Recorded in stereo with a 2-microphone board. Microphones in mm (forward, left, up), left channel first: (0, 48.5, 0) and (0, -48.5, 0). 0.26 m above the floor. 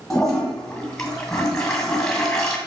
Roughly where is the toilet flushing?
Centre.